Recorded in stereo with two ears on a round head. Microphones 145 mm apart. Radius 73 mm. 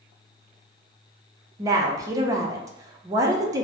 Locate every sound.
1.6 s a woman speaking: 20° right (ahead or behind), 0.5 m